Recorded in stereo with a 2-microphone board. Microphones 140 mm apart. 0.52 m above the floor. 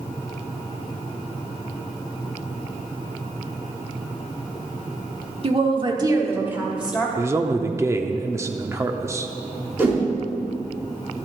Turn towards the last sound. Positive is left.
turn(degrees=-20)  # may be behind; listen again after turning